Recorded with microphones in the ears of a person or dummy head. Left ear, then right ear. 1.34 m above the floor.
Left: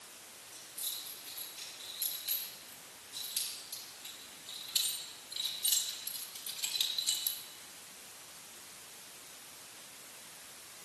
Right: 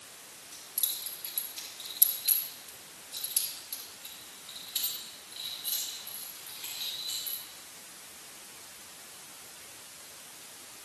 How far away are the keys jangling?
About 6 m.